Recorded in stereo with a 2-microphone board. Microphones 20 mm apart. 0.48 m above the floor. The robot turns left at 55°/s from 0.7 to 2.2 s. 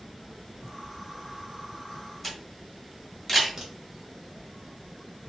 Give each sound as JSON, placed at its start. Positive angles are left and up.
{"t": 2.2, "sound": "a camera shutter", "side_deg": 5, "distance_m": 1.5}
{"t": 3.6, "sound": "a crack", "side_deg": -25, "distance_m": 1.4}